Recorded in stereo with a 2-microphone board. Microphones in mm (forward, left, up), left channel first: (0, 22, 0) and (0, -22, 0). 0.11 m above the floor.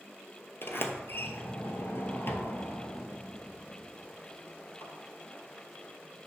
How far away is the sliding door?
About 0.8 m.